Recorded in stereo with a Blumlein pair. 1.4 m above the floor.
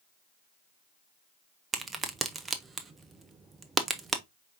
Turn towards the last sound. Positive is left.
turn(degrees=-15)